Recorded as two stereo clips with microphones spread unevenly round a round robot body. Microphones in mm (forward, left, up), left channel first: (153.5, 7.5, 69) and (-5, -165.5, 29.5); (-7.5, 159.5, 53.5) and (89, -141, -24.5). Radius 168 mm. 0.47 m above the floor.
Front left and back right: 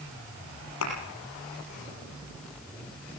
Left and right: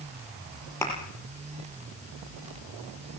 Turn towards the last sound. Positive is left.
turn(degrees=30)